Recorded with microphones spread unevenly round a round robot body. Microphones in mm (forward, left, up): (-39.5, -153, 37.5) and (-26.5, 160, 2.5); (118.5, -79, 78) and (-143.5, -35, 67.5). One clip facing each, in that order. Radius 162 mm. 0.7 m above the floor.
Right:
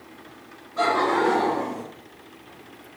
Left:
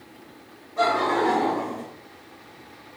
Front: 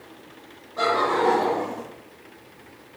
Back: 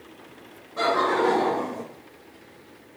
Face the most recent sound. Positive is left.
turn(degrees=-160)